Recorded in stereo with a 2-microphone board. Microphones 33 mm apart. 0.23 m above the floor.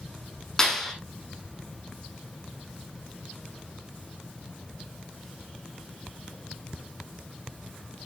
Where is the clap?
15° left (ahead or behind), 7 m.